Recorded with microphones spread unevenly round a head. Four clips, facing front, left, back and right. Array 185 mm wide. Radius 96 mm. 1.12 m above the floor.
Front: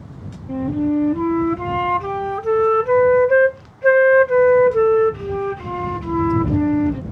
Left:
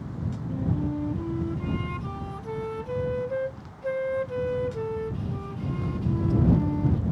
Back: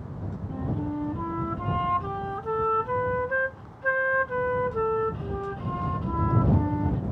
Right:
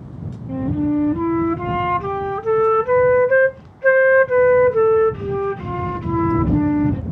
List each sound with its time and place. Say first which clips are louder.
0.5 s a flute: right 11 dB, front 12 dB; 45° right